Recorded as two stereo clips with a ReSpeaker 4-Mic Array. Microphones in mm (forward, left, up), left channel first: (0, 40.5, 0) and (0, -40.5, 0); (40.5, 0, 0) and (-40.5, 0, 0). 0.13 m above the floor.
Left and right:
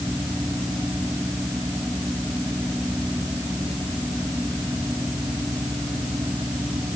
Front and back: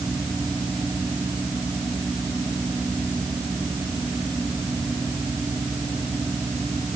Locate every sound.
Only background noise.